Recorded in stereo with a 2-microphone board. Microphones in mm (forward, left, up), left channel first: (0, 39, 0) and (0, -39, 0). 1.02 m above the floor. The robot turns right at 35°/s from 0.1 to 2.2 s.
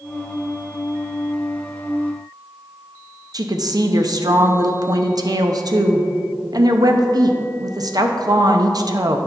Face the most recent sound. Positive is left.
turn(degrees=-55)  # may be behind; listen again after turning